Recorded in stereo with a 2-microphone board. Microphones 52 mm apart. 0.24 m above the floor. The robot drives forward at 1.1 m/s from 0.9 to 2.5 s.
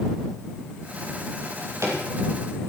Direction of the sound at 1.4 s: 65° right (ahead or behind).